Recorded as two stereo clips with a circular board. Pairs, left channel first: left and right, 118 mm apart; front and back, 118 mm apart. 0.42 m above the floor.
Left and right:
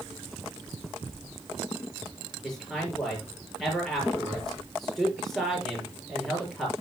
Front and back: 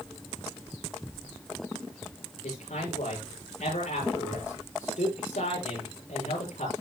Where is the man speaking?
Straight ahead, 7 m.